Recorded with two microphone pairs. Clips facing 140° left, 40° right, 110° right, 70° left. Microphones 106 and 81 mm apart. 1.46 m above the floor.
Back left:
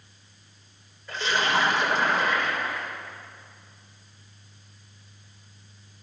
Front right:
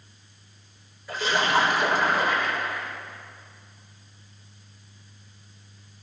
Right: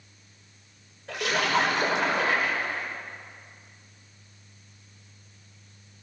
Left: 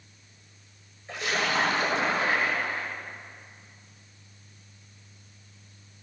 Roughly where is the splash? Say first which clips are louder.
Front right 2 dB, right 3 dB; behind right.